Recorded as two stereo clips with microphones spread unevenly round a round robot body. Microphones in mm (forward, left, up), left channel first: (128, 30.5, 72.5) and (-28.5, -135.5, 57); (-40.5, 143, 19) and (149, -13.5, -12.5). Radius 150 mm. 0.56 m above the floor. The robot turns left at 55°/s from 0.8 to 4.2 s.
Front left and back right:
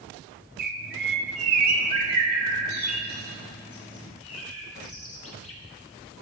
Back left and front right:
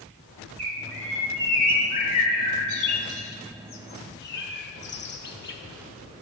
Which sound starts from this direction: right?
A bird, at 0.6 s.